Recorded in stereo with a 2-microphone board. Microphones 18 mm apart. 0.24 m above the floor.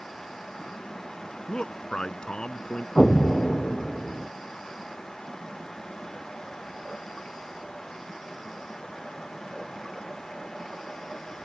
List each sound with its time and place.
1.5 s a man speaking: 60° left (ahead or behind)
3.0 s an explosion: 15° left (ahead or behind)